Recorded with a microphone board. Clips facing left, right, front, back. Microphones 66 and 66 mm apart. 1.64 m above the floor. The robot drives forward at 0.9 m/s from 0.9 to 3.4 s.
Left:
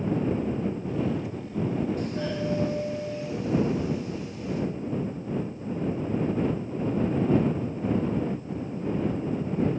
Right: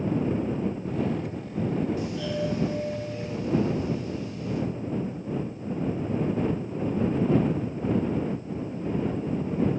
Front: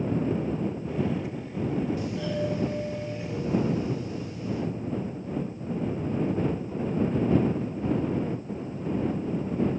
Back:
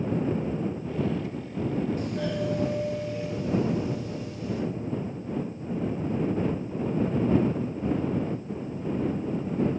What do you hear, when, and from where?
2.0 s a doorbell: 135° left, 0.7 m; by 4.6 s 165° left, 1.8 m